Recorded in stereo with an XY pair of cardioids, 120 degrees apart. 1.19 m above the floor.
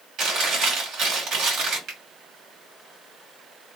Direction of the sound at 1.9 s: 65° right.